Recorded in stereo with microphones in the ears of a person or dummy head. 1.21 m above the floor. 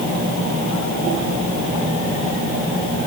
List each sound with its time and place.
Only background noise.